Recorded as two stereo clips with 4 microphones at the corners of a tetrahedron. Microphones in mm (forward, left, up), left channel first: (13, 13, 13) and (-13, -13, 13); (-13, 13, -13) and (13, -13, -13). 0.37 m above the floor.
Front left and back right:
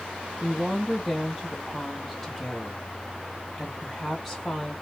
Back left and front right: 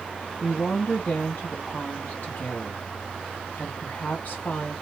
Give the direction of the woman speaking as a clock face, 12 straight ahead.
8 o'clock.